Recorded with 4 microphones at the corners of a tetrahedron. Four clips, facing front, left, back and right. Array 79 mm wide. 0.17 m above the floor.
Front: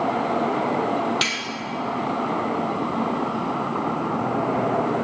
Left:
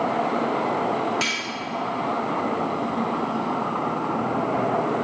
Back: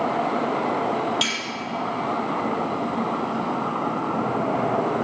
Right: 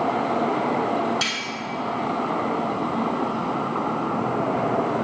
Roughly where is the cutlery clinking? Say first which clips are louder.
Left 1 dB, front 1 dB; ahead.